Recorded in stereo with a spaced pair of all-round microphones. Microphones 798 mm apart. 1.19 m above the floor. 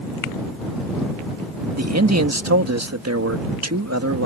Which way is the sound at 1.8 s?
20° right (ahead or behind).